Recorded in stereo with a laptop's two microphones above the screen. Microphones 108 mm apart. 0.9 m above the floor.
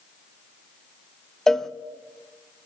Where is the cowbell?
5° left (ahead or behind), 0.6 m.